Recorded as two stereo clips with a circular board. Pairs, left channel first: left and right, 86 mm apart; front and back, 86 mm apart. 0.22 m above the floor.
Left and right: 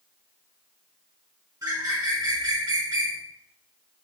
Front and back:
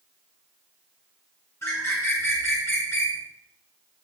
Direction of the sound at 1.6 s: 50° right.